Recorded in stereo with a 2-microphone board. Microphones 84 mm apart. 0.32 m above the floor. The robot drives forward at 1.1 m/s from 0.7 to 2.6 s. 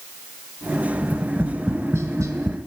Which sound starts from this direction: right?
Tapping, at 1.0 s.